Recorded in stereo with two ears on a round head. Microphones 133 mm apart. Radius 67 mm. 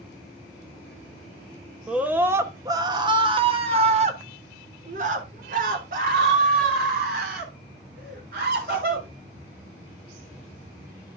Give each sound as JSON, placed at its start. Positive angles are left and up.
{"t": 1.9, "sound": "a scream", "side_deg": -5, "distance_m": 1.3}